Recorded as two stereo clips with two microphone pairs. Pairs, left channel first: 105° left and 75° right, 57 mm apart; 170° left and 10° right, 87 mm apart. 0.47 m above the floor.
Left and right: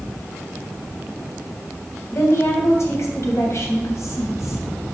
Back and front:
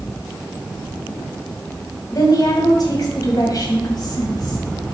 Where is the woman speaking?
130° left, 2.5 m.